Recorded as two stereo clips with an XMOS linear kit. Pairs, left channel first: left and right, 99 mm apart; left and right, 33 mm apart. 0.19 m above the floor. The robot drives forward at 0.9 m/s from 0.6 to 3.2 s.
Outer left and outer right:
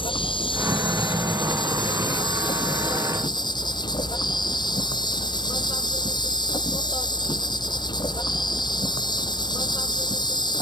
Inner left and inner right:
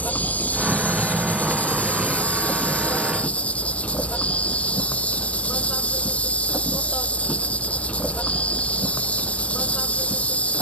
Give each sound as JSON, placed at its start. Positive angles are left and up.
{"t": 0.0, "sound": "an insect", "side_deg": 55}